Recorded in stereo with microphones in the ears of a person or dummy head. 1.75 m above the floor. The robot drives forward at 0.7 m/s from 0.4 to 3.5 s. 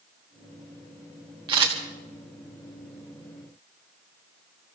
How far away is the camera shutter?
About 1.6 m.